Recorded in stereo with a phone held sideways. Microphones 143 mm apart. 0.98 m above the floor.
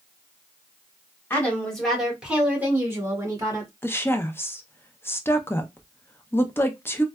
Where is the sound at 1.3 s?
15° left (ahead or behind), 1.5 m; by 3.7 s 30° right (ahead or behind), 2.0 m.